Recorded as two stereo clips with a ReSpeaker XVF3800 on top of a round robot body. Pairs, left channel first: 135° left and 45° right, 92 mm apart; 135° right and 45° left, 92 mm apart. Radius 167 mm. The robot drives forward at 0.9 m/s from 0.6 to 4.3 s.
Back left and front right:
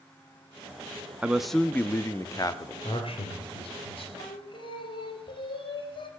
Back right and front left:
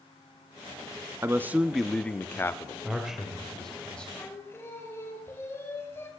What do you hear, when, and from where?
1.2 s a man speaking: 25° left, 0.9 m; by 2.7 s 170° left, 1.3 m
2.8 s a man speaking: 125° left, 1.9 m; by 4.1 s 145° left, 2.5 m
4.2 s singing: 160° left, 2.5 m